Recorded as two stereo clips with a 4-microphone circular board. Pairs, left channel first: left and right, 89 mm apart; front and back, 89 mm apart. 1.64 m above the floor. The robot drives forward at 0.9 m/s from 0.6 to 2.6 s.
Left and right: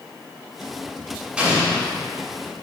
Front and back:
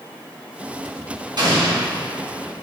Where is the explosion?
165° right, 1.5 m; by 1.9 s 170° right, 1.8 m.